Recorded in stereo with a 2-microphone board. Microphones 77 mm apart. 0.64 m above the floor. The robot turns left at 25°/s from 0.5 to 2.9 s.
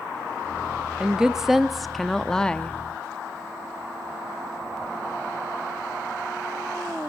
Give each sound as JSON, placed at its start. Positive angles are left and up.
{"t": 1.0, "sound": "a woman speaking", "azimuth_deg": -160, "distance_m": 0.6}